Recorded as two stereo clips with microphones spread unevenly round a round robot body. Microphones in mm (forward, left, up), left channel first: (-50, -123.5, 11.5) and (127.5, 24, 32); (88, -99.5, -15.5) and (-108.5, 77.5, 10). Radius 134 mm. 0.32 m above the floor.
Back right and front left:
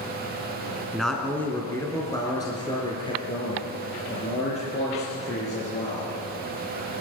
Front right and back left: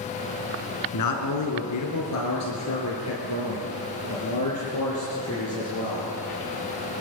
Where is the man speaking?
50° right, 3 m; by 6.1 s 80° right, 8.5 m.